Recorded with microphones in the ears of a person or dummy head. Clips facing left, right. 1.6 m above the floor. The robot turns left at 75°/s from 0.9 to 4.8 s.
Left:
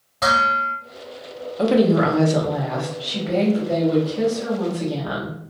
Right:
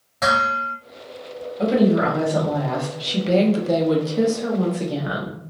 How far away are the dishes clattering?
About 1.3 m.